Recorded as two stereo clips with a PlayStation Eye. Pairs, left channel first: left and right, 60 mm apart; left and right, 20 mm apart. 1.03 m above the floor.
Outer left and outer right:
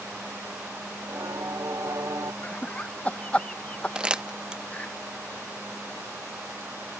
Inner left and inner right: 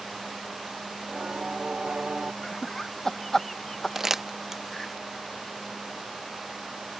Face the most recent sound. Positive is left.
turn(degrees=-15)  # may be behind; listen again after turning